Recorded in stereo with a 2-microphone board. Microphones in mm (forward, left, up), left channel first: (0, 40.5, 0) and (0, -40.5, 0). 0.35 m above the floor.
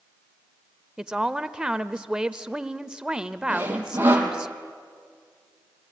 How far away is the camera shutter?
No camera shutter in this recording.